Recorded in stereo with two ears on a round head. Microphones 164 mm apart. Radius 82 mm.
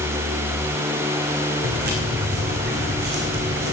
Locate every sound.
1.6 s footsteps: 65° right (ahead or behind), 4.5 m